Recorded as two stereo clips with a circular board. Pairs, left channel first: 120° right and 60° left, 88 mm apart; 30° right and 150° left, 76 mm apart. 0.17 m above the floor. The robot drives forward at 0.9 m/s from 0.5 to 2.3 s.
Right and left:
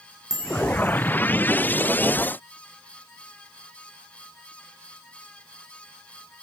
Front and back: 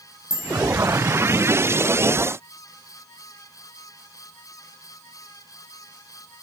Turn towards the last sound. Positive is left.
turn(degrees=150)